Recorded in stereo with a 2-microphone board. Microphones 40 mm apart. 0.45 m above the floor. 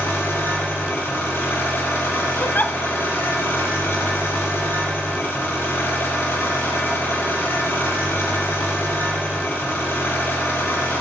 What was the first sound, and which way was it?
An engine running, 70° left (ahead or behind).